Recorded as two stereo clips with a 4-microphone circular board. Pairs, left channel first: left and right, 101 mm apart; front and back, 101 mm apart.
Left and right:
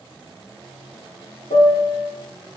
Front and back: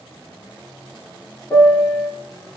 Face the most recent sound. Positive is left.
turn(degrees=80)